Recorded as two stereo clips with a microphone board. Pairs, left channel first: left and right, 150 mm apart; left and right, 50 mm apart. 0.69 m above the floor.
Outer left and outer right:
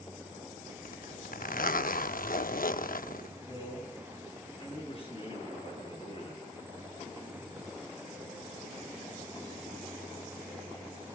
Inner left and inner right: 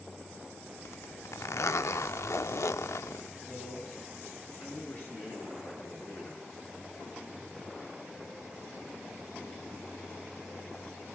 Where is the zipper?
70° left (ahead or behind), 0.7 m.